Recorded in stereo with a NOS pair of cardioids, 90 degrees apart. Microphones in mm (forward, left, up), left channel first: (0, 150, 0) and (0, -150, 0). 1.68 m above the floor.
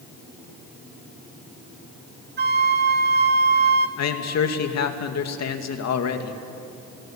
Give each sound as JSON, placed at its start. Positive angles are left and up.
{"t": 2.4, "sound": "a flute", "azimuth_deg": -35, "distance_m": 2.5}
{"t": 4.0, "sound": "a man speaking", "azimuth_deg": 60, "distance_m": 2.5}